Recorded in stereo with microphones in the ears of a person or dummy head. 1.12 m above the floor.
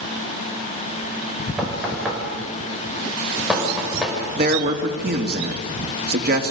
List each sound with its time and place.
1.6 s knocking: 5° right (ahead or behind), 5 m
4.4 s a man speaking: 55° right (ahead or behind), 2.5 m